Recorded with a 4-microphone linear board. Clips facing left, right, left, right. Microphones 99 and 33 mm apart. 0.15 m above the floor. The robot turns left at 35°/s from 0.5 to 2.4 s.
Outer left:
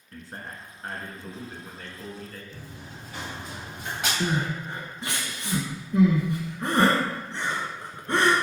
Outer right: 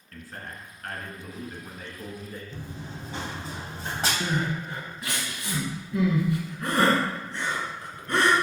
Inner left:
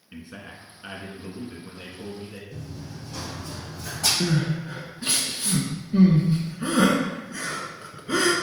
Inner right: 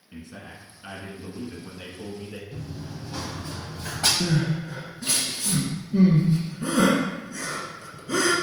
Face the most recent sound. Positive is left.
turn(degrees=25)  # may be behind; listen again after turning